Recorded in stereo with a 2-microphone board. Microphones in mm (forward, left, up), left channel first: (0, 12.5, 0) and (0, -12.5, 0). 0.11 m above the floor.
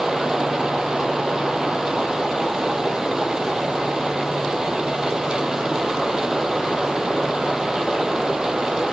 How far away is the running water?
About 1.9 m.